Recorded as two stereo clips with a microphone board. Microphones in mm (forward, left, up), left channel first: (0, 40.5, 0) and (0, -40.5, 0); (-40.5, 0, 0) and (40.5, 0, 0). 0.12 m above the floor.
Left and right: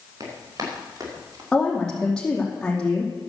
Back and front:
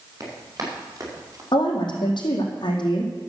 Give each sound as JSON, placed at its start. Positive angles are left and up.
{"t": 0.2, "sound": "running footsteps", "azimuth_deg": -45, "distance_m": 6.5}
{"t": 1.5, "sound": "a woman speaking", "azimuth_deg": 170, "distance_m": 4.0}